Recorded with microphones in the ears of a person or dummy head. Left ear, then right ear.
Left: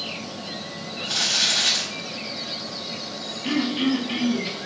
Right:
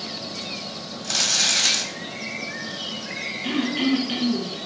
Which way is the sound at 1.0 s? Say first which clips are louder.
Even; 65° right (ahead or behind).